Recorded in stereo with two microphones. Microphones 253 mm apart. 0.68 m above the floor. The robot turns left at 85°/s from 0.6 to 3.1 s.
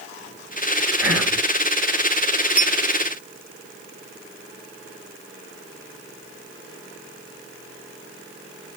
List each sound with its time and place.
1.0 s whispering: 170° right, 2.5 m; by 1.4 s 160° left, 2.5 m
2.6 s a clink: 5° right (ahead or behind), 0.6 m; by 2.8 s 15° right (ahead or behind), 0.6 m